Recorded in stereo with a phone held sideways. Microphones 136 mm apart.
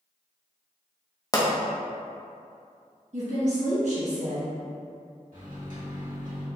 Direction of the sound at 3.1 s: 60° right (ahead or behind).